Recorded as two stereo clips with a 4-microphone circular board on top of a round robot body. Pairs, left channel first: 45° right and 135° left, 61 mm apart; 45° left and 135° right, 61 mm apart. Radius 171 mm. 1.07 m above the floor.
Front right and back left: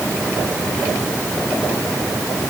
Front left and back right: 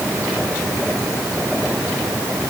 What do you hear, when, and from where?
Only background noise.